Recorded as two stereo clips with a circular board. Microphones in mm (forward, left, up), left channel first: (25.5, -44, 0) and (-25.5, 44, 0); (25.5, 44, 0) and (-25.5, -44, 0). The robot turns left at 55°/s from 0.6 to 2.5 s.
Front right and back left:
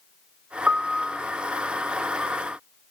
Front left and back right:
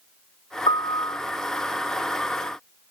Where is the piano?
50° left, 0.6 m; by 1.2 s 20° left, 0.6 m.